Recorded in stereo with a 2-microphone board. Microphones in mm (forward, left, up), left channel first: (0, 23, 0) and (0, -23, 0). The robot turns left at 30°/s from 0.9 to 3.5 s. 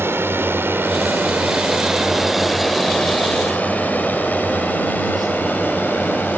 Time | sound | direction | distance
0.0 | a drone | 55° right (ahead or behind) | ?